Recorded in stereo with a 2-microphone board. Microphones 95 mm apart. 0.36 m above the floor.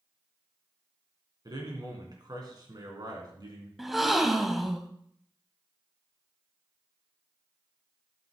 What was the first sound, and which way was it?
A man speaking, 50° right (ahead or behind).